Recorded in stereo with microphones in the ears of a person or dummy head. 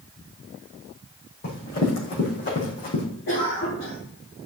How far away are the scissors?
I don't hear scissors.